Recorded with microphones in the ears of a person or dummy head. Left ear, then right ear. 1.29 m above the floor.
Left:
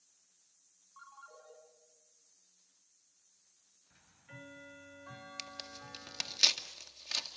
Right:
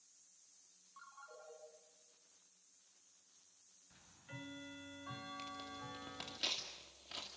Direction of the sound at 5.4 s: 60° left (ahead or behind).